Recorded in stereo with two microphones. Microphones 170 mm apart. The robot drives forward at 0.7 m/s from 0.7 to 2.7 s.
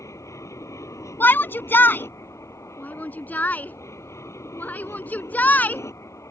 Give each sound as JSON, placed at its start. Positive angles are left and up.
{"t": 0.0, "sound": "an aircraft", "side_deg": 15}
{"t": 1.2, "sound": "a shout", "side_deg": 10}